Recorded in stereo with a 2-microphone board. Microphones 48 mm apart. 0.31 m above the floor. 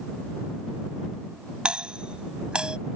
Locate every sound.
1.6 s a doorbell: 20° right (ahead or behind)